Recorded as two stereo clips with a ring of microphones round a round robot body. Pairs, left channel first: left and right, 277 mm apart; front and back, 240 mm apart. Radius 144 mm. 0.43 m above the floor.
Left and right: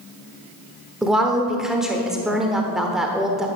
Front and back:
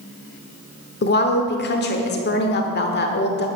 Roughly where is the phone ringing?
I don't hear a phone ringing.